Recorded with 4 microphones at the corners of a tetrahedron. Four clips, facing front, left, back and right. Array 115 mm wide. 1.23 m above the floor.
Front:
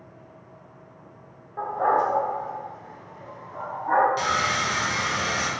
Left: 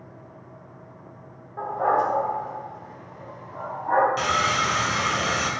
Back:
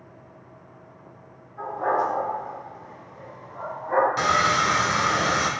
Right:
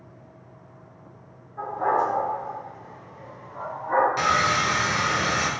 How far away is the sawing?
About 1.4 m.